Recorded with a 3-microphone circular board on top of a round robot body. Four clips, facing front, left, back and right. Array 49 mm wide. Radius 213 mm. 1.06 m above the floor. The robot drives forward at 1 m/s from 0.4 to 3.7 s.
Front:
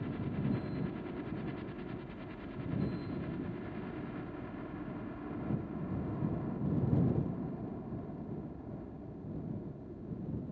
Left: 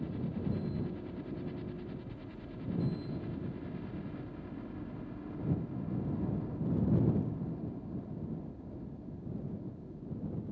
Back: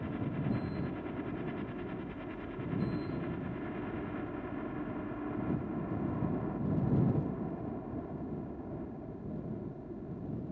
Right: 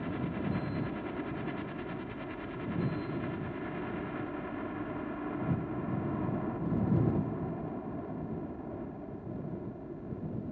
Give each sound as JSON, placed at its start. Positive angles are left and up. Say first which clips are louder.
{"t": 0.0, "sound": "a helicopter", "louder": "right 3 dB, back 1 dB", "azimuth_deg": -100}